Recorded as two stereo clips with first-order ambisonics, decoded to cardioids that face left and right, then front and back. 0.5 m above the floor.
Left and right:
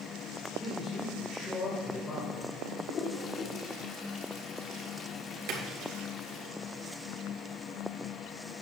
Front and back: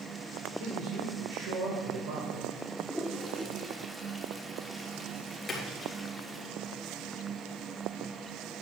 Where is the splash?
80° right, 3.5 m.